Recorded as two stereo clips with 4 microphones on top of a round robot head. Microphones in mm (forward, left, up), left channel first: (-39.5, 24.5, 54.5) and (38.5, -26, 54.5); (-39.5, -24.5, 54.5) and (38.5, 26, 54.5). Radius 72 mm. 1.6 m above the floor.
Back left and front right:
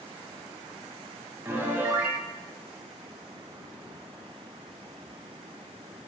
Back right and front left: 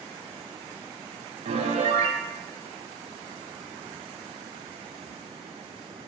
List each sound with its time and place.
1.4 s a piano: 35° left, 0.7 m